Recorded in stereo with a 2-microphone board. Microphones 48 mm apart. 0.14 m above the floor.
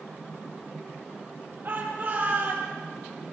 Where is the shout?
45° right (ahead or behind), 4 m; by 2.7 s 40° right (ahead or behind), 4.5 m.